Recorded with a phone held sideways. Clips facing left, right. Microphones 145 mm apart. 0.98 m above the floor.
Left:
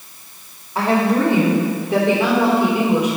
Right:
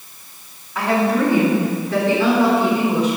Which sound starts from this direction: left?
A woman speaking, at 0.8 s.